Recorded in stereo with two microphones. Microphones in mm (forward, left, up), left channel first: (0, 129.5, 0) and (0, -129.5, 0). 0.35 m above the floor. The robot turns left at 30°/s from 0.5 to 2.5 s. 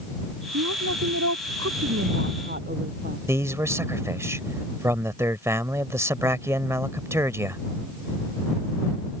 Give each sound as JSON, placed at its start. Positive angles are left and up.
{"t": 0.5, "sound": "a woman speaking", "azimuth_deg": -85}
{"t": 3.3, "sound": "a man speaking", "side_deg": -10}